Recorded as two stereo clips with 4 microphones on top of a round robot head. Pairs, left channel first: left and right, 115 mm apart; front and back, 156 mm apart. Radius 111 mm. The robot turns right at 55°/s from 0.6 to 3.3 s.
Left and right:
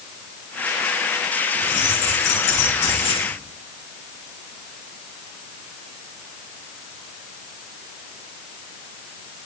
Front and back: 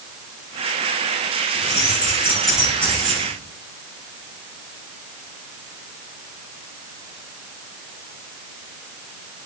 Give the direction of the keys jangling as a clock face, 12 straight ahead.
11 o'clock.